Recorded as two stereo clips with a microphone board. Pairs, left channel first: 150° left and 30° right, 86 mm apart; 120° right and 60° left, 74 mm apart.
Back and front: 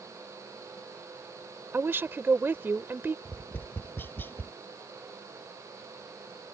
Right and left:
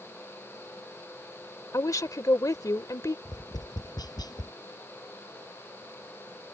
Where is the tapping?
145° right.